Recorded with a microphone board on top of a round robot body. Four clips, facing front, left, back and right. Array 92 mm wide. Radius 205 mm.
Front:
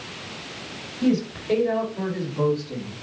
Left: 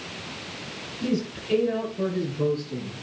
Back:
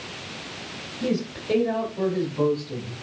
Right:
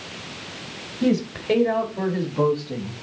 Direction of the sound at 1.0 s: 90° right.